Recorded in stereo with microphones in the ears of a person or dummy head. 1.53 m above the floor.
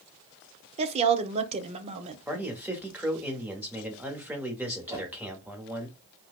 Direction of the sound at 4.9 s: 10° right (ahead or behind).